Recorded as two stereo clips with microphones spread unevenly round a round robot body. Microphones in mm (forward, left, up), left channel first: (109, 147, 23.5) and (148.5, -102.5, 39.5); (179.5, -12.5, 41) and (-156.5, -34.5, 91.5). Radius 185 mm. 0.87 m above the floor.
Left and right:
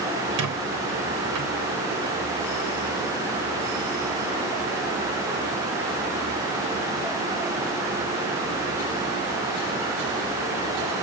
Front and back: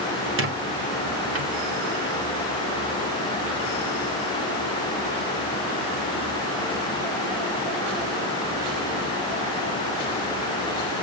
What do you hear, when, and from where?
0.4 s a squeak: 120° right, 1.3 m